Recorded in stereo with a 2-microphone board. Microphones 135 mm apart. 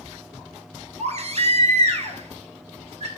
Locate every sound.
1.0 s a baby crying: 55° right (ahead or behind), 1.1 m